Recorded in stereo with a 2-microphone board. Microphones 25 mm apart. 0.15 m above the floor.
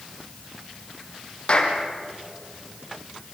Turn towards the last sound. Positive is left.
turn(degrees=40)  # may be behind; listen again after turning